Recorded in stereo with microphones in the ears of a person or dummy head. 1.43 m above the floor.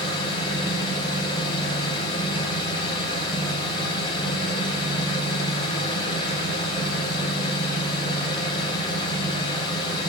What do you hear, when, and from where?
0.0 s an engine running: 30° left (ahead or behind), 3.5 m